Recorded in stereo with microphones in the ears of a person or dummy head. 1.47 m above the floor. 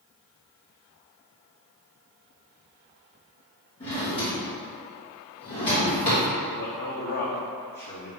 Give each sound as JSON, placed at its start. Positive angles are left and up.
{"t": 3.8, "sound": "a drawer", "side_deg": 30, "distance_m": 0.9}
{"t": 6.5, "sound": "a man speaking", "side_deg": 55, "distance_m": 0.6}